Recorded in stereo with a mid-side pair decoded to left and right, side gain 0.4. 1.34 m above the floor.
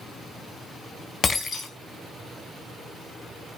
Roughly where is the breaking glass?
Ahead left.